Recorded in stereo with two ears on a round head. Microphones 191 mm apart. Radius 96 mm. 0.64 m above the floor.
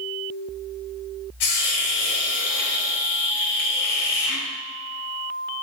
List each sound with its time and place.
1.4 s a hiss: 85° left, 1.6 m